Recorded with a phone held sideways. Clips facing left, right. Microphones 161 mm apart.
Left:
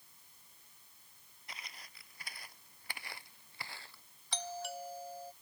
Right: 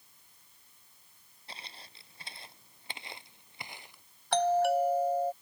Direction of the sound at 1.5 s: 30° right (ahead or behind).